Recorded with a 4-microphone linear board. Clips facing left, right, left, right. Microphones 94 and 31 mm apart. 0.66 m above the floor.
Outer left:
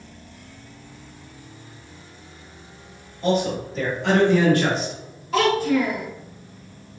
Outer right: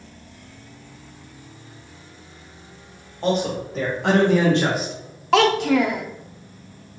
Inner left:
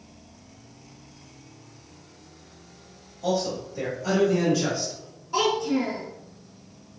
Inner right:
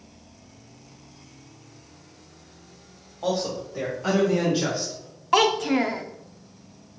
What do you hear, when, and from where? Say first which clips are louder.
3.2 s a man speaking: even, even; 70° right (ahead or behind), 1.9 m; by 5.0 s 5° left (ahead or behind), 0.9 m
5.3 s a child speaking: outer right 3 dB, inner right 4 dB; 80° right, 0.6 m